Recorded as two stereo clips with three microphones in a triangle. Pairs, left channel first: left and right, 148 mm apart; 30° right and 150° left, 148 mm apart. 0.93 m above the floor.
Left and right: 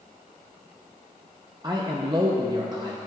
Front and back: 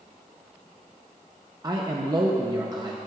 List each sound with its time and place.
1.6 s a man speaking: 145° right, 0.7 m